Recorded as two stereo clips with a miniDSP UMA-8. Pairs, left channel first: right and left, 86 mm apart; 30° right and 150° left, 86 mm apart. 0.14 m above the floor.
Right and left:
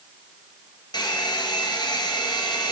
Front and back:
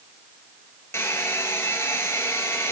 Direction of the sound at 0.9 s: 85° right.